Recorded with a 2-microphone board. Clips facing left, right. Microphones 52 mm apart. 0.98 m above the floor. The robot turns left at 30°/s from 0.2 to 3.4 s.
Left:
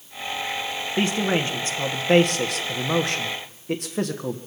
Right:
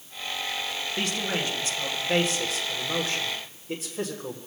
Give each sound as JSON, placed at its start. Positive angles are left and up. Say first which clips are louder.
{"t": 1.0, "sound": "a man speaking", "louder": "left 8 dB", "azimuth_deg": 155, "distance_m": 1.6}